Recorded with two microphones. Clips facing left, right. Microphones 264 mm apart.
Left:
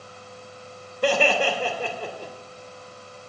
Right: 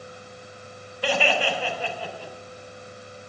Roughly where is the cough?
No cough in this recording.